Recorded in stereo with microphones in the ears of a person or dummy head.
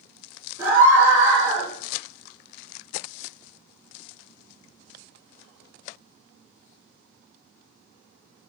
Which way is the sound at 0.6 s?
10° right (ahead or behind).